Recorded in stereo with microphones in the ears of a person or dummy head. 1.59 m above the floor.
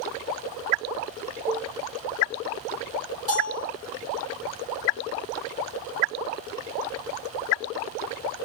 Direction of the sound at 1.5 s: 10° left (ahead or behind).